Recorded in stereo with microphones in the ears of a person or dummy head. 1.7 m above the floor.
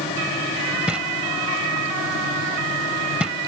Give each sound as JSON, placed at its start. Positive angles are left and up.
{"t": 0.9, "sound": "knocking", "side_deg": 0}